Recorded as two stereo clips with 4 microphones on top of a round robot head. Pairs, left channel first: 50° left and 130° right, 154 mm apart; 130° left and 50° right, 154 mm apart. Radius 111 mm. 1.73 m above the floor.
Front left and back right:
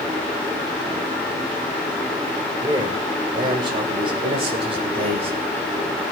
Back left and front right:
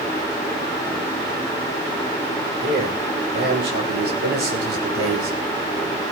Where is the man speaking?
65° right, 6.5 m; by 5.4 s 75° right, 7 m.